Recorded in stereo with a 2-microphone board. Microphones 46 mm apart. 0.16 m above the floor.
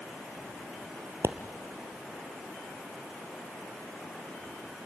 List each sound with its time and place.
1.2 s a pop: 60° right (ahead or behind), 1.1 m